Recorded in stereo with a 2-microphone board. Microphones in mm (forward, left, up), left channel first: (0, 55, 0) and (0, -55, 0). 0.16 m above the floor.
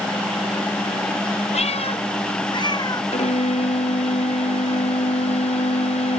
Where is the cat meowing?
80° left; by 3.0 s 35° left (ahead or behind).